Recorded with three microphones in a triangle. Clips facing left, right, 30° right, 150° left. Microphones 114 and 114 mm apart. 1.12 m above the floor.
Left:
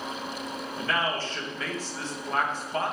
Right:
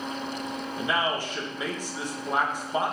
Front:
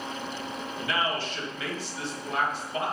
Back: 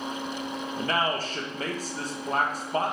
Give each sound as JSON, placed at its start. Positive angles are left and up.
{"t": 0.8, "sound": "a man speaking", "azimuth_deg": -165, "distance_m": 1.2}